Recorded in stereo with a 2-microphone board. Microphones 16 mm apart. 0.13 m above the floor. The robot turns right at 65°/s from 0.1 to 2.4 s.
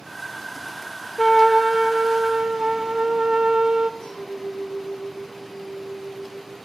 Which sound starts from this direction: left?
A clink, at 4.0 s.